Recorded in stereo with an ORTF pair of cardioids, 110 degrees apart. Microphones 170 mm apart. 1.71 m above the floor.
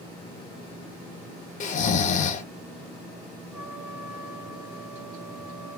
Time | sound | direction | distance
1.6 | snoring | 45° left | 1.5 m
3.5 | a trumpet | 5° right | 1.5 m